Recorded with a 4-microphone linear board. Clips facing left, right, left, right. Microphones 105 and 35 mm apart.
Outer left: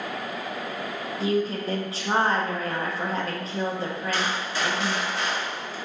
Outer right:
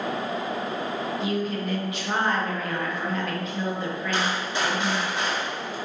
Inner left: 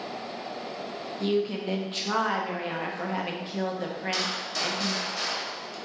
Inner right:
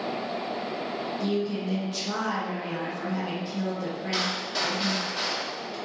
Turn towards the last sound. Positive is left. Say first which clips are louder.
# outer right 4 dB, inner right 5 dB
turn(degrees=-20)  # may be behind; listen again after turning